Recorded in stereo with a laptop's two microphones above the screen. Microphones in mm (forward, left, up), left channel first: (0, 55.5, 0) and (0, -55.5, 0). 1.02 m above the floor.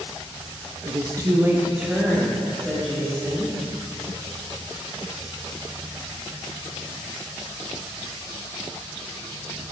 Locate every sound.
0.8 s a woman speaking: 45° right (ahead or behind), 1.0 m; by 3.5 s 10° left (ahead or behind), 3 m